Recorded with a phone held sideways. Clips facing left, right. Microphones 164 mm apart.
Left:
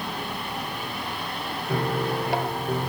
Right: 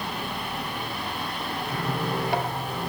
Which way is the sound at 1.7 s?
60° left (ahead or behind).